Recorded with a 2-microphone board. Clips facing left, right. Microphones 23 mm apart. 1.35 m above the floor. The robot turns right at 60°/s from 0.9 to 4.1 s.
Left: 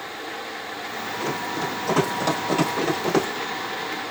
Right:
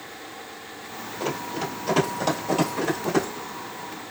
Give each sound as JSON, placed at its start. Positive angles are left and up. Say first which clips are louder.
{"t": 1.2, "sound": "running footsteps", "louder": "left 1 dB", "side_deg": -30, "distance_m": 1.6}